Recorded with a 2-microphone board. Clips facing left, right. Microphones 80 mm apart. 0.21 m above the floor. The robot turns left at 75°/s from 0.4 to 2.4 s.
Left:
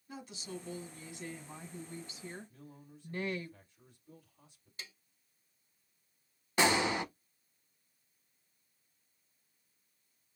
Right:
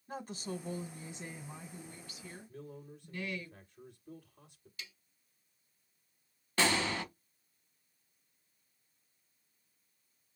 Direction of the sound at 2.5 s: 65° right (ahead or behind).